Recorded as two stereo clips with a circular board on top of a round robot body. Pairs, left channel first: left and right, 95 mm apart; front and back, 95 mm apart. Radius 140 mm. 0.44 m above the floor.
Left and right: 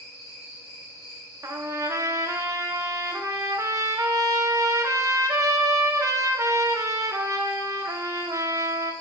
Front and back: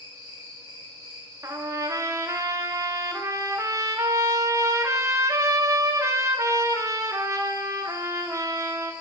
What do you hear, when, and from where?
0.0 s an insect: 35° left, 3.5 m
1.4 s a trumpet: 135° right, 0.9 m